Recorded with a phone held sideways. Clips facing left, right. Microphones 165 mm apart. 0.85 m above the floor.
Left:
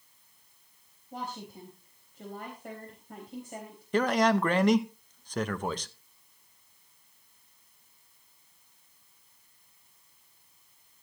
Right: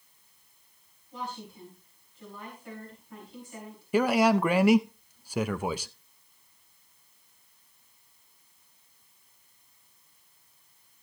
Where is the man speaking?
10° right (ahead or behind), 0.6 m.